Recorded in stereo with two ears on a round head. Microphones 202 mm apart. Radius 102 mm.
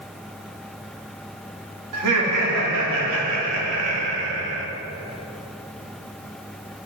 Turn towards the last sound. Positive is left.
turn(degrees=-65)  # may be behind; listen again after turning